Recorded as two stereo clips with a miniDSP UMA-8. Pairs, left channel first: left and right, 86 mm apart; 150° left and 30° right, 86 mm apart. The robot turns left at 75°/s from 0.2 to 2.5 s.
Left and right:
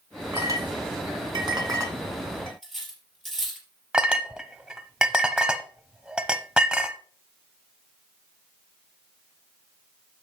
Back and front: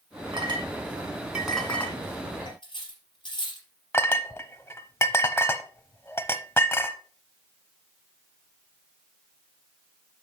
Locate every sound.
0.3 s a clink: 30° right, 2 m; by 2.5 s 165° left, 2 m
2.6 s cutlery clinking: 175° left, 3.5 m
3.9 s a clink: 165° right, 0.7 m